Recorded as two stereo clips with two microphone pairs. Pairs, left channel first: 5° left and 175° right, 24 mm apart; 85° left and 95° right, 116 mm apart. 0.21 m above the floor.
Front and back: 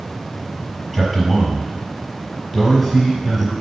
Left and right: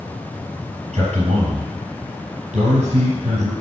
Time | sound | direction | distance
0.9 | a man speaking | 80° right | 5 m